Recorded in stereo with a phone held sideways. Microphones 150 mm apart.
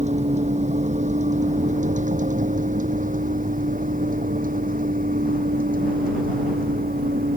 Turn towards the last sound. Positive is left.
turn(degrees=-70)  # may be behind; listen again after turning